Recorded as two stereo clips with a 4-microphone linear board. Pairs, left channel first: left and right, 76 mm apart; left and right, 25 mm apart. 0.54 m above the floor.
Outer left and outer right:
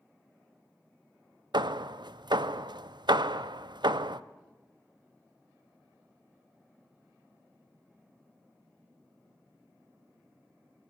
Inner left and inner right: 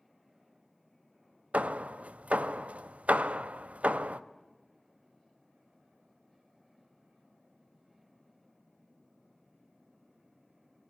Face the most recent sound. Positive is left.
turn(degrees=-80)